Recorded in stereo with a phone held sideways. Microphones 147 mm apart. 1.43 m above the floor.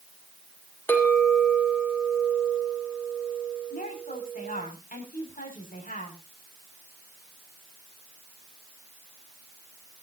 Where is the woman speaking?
70° left (ahead or behind), 6 m.